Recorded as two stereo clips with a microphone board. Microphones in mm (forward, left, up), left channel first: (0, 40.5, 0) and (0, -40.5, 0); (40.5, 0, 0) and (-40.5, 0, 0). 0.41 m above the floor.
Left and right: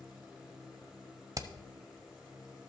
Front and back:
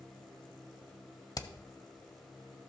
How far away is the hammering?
About 0.6 m.